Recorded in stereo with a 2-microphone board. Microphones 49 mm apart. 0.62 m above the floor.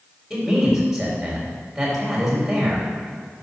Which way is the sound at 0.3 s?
10° right (ahead or behind).